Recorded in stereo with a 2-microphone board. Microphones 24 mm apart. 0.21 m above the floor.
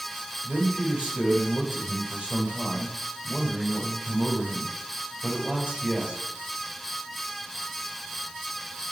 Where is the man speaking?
65° right (ahead or behind), 4 m.